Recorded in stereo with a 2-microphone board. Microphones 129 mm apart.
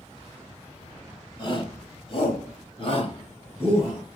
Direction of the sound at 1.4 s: 40° left (ahead or behind).